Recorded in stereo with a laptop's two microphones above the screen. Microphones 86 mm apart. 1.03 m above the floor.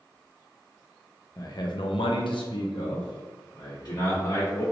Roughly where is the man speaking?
Left.